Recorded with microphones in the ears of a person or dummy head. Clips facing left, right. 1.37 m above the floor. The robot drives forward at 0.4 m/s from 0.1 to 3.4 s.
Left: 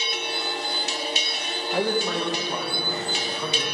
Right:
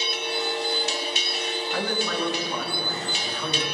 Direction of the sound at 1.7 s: 25° left (ahead or behind).